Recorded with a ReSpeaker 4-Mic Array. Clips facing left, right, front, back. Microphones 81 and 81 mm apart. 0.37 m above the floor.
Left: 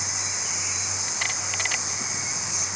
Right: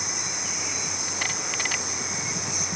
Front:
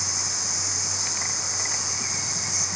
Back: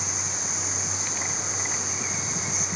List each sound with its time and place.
0.0 s an insect: 130° right